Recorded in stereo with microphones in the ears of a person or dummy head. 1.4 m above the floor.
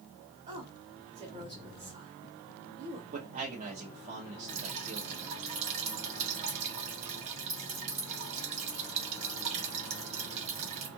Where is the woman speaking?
25° right (ahead or behind), 1.1 m.